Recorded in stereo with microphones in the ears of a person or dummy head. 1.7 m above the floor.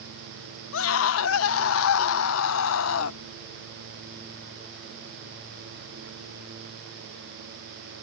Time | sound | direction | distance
0.7 | a scream | 85° left | ?